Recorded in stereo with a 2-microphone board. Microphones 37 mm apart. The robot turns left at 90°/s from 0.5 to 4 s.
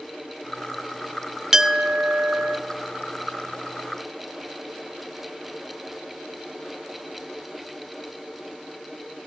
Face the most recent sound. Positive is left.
turn(degrees=125)